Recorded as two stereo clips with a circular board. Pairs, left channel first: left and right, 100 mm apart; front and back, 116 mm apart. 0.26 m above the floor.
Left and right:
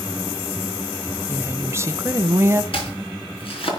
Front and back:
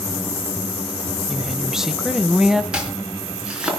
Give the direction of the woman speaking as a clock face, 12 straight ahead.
3 o'clock.